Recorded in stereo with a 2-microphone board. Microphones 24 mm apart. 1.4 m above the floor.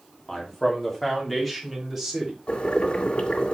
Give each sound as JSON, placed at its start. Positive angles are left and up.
{"t": 0.3, "sound": "a man speaking", "side_deg": 25, "distance_m": 3.0}
{"t": 2.5, "sound": "boiling", "side_deg": 55, "distance_m": 2.0}